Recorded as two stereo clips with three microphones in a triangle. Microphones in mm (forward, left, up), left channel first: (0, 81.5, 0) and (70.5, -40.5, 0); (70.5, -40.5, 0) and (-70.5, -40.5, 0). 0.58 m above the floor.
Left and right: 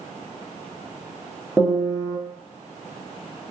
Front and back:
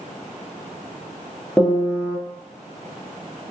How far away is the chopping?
I don't hear chopping.